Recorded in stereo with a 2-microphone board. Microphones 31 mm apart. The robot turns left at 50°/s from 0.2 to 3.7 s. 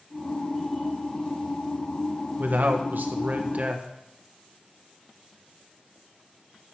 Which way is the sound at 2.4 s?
65° right.